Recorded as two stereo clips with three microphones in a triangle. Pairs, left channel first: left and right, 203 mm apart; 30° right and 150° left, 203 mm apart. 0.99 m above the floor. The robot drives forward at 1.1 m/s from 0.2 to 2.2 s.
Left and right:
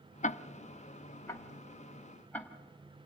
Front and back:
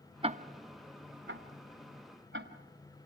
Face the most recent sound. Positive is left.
turn(degrees=170)